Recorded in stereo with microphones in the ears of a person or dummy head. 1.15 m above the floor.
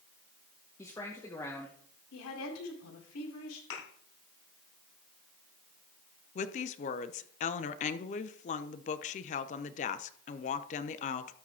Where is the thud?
70° left (ahead or behind), 4 m.